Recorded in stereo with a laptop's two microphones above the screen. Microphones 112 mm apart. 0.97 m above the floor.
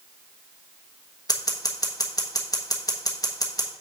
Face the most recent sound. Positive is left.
turn(degrees=35)  # may be behind; listen again after turning